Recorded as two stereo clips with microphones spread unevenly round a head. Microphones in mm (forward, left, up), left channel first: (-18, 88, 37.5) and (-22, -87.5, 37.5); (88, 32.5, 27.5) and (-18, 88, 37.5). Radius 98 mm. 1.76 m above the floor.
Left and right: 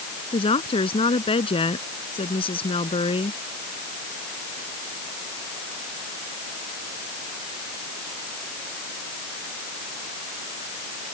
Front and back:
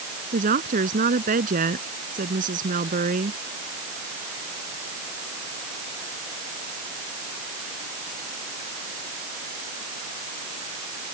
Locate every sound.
0.3 s a woman speaking: 150° left